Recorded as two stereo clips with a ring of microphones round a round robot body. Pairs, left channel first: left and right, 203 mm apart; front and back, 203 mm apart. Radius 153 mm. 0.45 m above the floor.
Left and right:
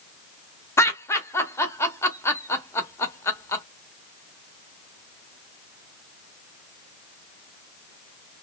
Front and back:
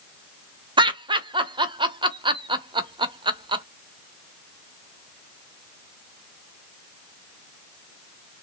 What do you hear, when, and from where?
0.8 s laughter: 150° left, 0.8 m